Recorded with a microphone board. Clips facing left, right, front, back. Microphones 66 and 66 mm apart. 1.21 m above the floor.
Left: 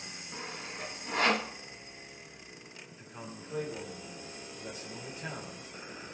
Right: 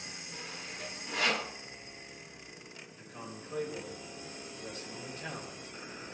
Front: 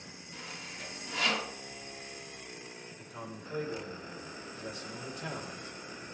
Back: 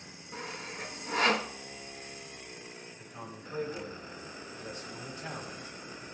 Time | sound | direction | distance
0.3 | sawing | 135° left | 0.9 m
2.9 | a man speaking | 20° left | 4.5 m